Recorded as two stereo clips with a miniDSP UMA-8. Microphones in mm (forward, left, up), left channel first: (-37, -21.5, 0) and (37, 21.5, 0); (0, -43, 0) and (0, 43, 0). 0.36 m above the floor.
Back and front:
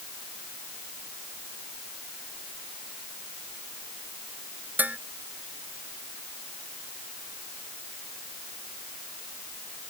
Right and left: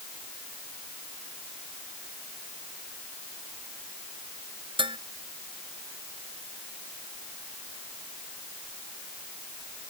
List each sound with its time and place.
4.8 s dishes clattering: 100° left